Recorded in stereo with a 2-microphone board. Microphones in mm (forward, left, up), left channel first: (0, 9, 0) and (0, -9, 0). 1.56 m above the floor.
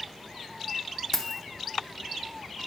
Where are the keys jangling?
25° left (ahead or behind), 0.5 m.